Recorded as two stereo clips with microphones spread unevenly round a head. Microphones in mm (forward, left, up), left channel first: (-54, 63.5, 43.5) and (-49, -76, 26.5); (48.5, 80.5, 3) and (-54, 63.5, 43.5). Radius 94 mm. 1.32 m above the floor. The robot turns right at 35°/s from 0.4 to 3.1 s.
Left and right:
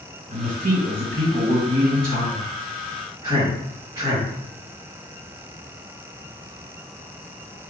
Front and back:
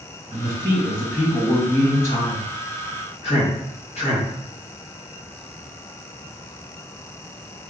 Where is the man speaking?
110° right, 1.9 m; by 4.3 s 20° right, 1.9 m.